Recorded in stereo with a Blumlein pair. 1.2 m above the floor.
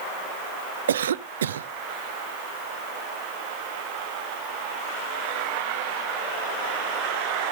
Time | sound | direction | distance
0.9 | a cough | 60° right | 0.5 m